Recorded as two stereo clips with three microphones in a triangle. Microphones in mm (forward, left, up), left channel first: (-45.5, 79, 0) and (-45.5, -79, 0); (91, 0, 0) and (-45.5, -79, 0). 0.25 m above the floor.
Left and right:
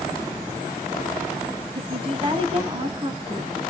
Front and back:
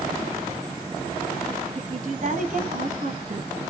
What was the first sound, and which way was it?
A woman speaking, 135° right.